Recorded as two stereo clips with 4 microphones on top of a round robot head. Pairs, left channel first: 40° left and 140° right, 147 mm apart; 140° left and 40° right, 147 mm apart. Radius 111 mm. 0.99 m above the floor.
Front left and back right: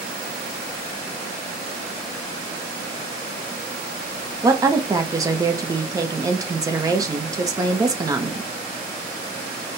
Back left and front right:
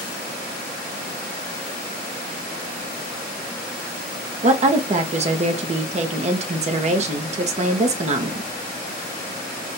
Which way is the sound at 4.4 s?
75° right.